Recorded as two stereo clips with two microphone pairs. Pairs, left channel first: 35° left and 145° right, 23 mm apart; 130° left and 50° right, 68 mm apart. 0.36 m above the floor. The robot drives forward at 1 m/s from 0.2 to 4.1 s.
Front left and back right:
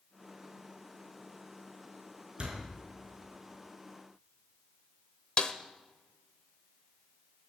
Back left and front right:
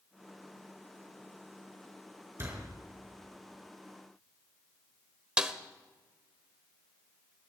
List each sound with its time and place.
2.4 s a door slam: 100° right, 4 m
5.4 s a snare drum: 15° left, 1.0 m